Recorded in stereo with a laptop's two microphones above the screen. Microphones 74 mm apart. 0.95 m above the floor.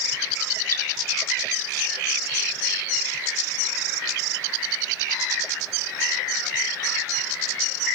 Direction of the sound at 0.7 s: 40° left (ahead or behind).